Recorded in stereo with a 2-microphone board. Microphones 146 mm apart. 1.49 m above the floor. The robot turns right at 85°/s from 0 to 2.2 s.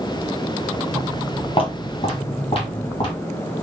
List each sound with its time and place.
0.9 s footsteps: 20° right (ahead or behind), 1.9 m; by 3.1 s 35° left (ahead or behind), 3.5 m